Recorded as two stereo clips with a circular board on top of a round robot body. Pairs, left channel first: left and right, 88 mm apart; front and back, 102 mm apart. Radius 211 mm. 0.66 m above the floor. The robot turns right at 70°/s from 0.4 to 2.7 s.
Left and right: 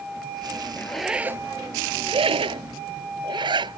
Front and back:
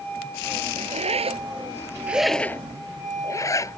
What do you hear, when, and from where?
0.8 s a zipper: 165° left; by 3.8 s 60° right